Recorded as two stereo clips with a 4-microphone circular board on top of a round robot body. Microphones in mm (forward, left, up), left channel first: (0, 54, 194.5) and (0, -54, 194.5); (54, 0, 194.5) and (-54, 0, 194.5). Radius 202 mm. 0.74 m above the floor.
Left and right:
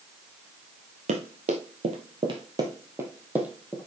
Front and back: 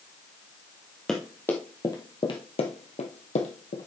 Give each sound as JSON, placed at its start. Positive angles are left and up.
{"t": 1.1, "sound": "running footsteps", "azimuth_deg": -85, "distance_m": 1.7}